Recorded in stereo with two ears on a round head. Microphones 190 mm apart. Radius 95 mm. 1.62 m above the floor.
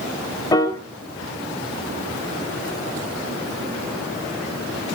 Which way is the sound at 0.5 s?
20° left (ahead or behind).